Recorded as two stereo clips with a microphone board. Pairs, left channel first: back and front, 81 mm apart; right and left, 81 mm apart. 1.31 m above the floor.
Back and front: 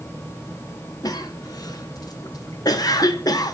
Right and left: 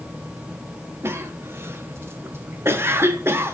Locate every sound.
1.0 s a cough: 145° left, 1.0 m